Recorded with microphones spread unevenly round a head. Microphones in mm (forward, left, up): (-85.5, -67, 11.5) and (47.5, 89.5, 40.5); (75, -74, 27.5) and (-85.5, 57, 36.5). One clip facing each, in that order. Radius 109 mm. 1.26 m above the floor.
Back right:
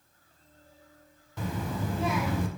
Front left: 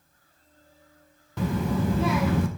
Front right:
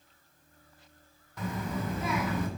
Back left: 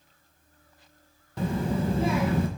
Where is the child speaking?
80° left, 0.6 m.